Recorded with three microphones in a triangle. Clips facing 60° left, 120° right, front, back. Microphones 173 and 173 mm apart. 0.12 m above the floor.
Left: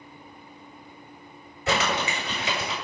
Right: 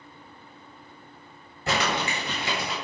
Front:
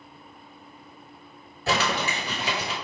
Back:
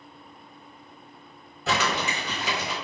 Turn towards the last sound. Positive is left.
turn(degrees=-90)